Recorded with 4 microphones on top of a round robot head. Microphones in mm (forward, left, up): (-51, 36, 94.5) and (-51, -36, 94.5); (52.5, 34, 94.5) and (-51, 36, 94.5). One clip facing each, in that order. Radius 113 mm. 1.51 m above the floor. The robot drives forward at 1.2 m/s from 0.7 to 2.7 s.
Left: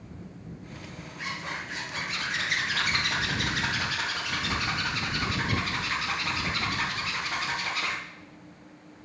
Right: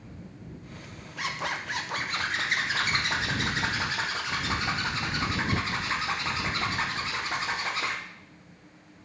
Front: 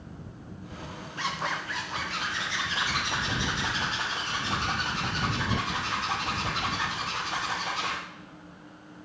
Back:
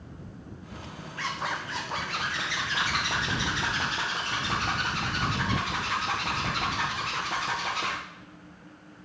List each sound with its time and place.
1.2 s a zipper: 70° right, 0.8 m; by 8.0 s 155° right, 1.7 m